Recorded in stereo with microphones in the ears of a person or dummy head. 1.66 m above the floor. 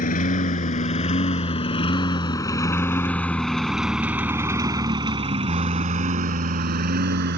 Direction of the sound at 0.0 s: 40° left (ahead or behind).